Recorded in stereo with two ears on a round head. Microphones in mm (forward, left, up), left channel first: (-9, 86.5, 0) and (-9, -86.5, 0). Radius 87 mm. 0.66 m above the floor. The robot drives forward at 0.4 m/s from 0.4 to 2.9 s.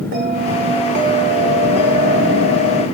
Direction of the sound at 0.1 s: 50° right (ahead or behind).